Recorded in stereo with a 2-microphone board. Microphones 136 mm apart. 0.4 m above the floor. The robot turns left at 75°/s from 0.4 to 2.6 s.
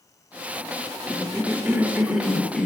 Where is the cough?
20° right (ahead or behind), 0.7 m; by 2.7 s 5° left (ahead or behind), 0.7 m.